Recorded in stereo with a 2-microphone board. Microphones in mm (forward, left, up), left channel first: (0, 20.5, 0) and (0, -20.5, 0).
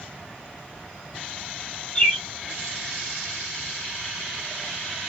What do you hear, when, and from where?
1.9 s a bird: 25° left (ahead or behind), 1.0 m